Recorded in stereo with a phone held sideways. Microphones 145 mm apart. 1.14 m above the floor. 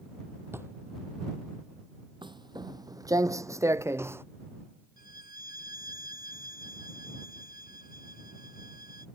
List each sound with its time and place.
0.5 s a drawer: 15° right (ahead or behind)
2.2 s footsteps: 35° right (ahead or behind); by 4.2 s 15° right (ahead or behind)
5.0 s a violin: 80° left